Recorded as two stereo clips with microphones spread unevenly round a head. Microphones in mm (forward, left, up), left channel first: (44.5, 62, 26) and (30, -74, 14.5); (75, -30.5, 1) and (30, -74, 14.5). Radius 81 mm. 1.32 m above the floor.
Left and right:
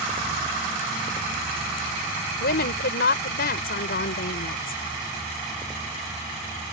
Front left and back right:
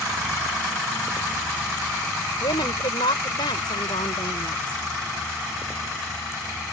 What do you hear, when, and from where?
2.4 s a woman speaking: 75° left